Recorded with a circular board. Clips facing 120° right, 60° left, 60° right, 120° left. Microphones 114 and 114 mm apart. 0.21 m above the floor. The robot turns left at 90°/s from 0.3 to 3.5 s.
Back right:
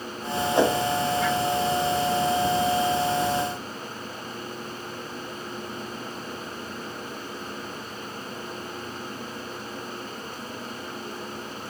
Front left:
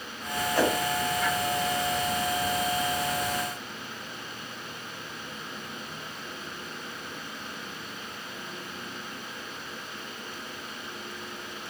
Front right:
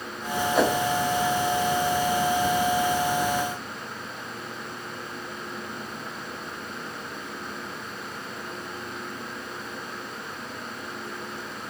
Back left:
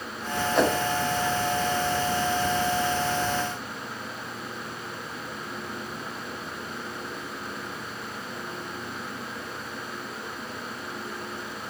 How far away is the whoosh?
About 1.4 m.